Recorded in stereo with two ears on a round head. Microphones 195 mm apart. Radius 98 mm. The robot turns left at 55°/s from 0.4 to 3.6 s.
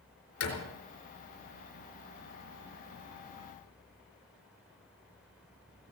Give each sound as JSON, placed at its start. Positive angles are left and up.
{"t": 0.4, "sound": "a door slam", "side_deg": 80, "distance_m": 4.0}